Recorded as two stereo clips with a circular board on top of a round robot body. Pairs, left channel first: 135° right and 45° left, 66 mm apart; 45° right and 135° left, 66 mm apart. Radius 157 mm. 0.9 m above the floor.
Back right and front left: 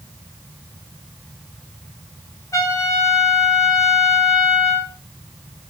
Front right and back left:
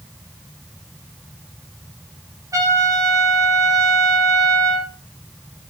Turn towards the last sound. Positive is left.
turn(degrees=180)